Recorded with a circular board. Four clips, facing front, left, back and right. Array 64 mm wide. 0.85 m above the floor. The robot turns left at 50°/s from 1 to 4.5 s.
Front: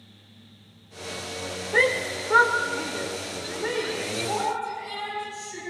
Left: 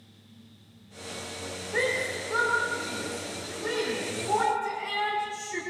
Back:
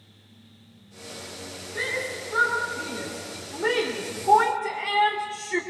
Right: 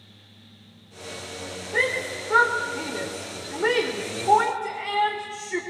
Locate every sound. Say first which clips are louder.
1.7 s a shout: right 3 dB, front 7 dB; 5° right, 2.5 m; by 5.6 s 140° right, 2.5 m